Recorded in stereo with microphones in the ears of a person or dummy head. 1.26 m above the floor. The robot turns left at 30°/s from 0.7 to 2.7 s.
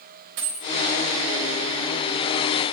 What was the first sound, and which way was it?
A dropped coin, 55° right (ahead or behind).